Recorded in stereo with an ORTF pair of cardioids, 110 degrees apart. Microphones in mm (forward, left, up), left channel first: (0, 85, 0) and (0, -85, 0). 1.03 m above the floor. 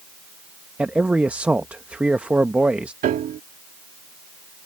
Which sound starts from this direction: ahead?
A man speaking, at 0.8 s.